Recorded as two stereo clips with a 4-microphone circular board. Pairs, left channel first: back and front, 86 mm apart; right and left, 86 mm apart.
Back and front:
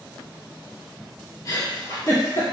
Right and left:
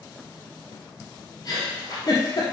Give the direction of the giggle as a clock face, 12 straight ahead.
4 o'clock.